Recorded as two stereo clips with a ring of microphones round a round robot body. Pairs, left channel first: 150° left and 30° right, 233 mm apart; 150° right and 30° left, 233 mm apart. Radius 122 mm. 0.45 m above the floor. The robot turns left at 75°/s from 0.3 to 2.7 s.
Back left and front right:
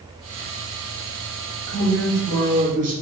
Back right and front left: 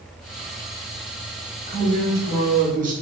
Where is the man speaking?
80° left, 1.0 m; by 2.9 s straight ahead, 1.0 m.